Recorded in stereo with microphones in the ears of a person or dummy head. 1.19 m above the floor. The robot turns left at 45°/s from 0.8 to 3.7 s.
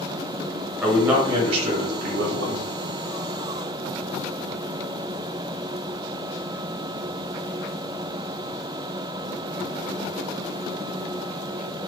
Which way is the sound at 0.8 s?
5° left.